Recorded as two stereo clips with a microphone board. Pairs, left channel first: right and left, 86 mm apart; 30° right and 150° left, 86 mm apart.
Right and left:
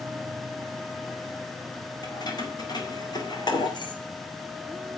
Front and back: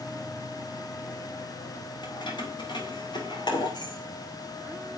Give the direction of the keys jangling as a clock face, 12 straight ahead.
2 o'clock.